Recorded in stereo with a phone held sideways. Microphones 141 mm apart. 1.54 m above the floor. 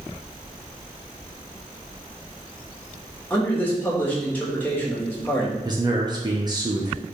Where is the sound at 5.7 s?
30° right (ahead or behind), 1.0 m.